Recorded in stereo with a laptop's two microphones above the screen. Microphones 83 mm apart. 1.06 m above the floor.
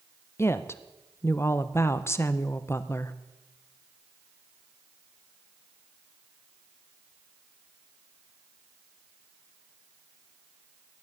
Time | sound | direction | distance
0.4 | a woman speaking | 30° left (ahead or behind) | 0.7 m